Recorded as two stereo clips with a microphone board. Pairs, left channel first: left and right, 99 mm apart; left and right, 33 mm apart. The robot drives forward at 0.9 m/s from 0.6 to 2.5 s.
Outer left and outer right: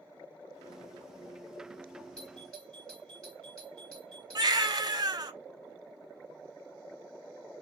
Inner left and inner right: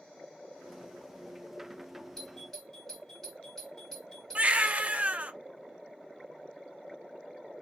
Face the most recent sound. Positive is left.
turn(degrees=-45)  # may be behind; listen again after turning